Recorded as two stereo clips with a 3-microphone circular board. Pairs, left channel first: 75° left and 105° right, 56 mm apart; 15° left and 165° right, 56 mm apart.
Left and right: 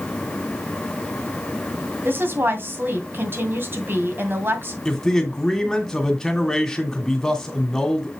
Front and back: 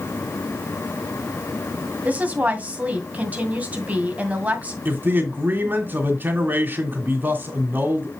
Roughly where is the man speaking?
Behind left.